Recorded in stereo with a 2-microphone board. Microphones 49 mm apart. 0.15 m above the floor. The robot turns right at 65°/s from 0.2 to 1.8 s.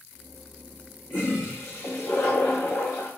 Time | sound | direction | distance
1.1 | a toilet flushing | 50° left | 4.5 m